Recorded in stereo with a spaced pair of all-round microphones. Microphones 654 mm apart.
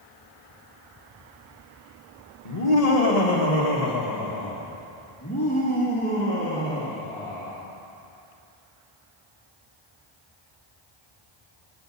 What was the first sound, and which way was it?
Laughter, 70° left (ahead or behind).